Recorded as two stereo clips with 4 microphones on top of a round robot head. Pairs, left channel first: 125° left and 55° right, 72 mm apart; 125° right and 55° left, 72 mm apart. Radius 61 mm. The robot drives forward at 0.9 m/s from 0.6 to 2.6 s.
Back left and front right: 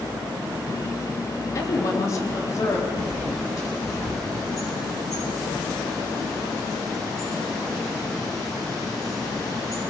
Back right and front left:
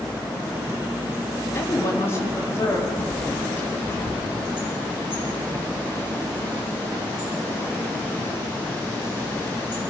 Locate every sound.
1.6 s a woman speaking: 175° left, 3 m
3.0 s a bird: 170° left, 8.5 m